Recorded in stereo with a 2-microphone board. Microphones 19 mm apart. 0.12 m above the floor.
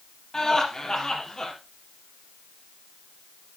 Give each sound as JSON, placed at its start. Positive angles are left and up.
{"t": 0.3, "sound": "laughter", "side_deg": 40, "distance_m": 4.0}